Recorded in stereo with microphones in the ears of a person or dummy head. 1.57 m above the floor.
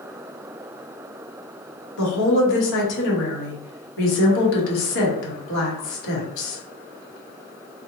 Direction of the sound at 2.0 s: 70° left (ahead or behind).